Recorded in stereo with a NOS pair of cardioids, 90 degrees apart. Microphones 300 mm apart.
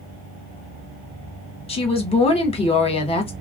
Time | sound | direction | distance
1.7 | a woman speaking | 20° left | 1.2 m